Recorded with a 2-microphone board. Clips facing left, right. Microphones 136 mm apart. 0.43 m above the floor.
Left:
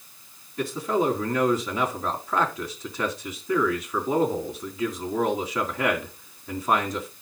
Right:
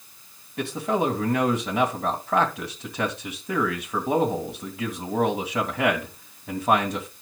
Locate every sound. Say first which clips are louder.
0.6 s a man speaking: even; 70° right (ahead or behind), 2.5 m